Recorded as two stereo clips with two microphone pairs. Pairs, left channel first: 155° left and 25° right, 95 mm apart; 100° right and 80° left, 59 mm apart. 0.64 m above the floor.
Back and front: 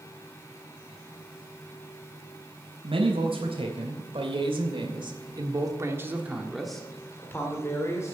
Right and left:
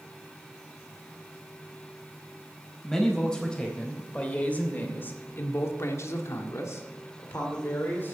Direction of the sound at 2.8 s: 20° right.